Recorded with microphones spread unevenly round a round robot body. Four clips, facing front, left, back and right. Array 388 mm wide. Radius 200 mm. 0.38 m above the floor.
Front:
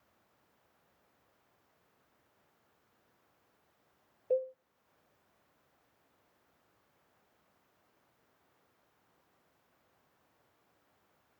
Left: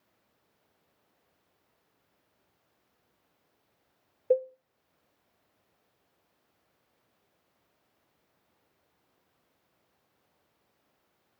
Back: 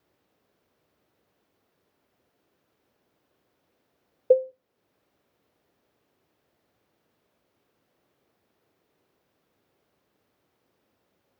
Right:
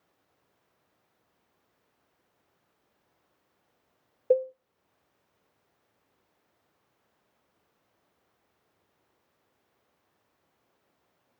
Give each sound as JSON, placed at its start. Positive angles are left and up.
{"t": 4.3, "sound": "a cowbell", "azimuth_deg": -165, "distance_m": 0.5}